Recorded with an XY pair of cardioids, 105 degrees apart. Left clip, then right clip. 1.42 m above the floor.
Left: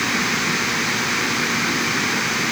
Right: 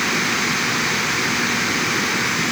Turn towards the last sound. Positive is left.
No sound to turn to.